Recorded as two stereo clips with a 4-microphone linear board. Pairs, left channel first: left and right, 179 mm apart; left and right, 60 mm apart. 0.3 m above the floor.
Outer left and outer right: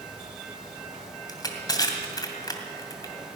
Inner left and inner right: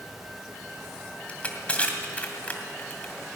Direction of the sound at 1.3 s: 20° left (ahead or behind).